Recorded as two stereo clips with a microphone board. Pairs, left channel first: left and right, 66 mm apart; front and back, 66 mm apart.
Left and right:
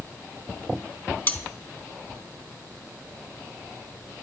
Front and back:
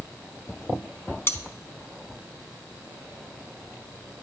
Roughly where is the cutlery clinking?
Ahead left.